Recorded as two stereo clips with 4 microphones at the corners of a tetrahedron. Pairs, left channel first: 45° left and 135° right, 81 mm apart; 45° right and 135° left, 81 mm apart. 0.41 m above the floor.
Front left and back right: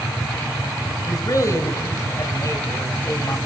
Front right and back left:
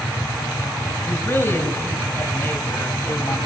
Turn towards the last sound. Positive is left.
turn(degrees=10)